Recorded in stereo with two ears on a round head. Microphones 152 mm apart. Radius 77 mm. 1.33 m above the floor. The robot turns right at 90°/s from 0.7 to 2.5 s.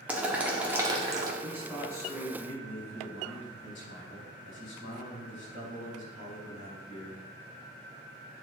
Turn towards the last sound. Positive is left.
turn(degrees=75)